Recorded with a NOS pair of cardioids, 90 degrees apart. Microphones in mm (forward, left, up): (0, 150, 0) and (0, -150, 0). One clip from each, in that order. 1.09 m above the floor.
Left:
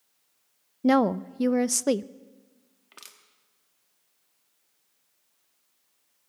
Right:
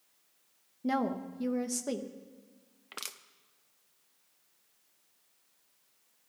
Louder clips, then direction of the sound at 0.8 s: Left 10 dB; 50° left.